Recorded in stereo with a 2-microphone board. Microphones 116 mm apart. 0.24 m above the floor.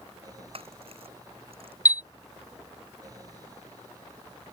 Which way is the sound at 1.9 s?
35° left (ahead or behind).